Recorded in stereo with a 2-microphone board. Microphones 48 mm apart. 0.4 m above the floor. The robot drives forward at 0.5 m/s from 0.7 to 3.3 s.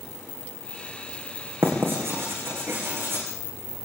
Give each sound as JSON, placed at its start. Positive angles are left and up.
{"t": 1.6, "sound": "writing", "side_deg": -60, "distance_m": 8.5}